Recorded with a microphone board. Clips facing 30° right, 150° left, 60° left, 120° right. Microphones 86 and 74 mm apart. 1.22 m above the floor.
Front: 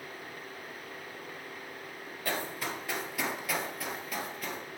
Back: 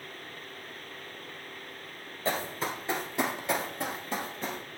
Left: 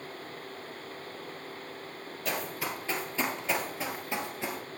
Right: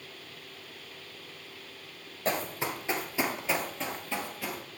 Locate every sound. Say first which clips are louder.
2.2 s running footsteps: back 3 dB, right 3 dB; 155° right, 1.6 m; by 4.6 s 105° left, 1.5 m